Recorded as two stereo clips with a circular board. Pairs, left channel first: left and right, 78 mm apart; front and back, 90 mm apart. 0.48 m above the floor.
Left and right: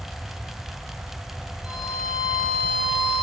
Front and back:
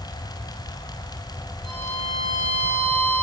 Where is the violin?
15° right, 5.5 m.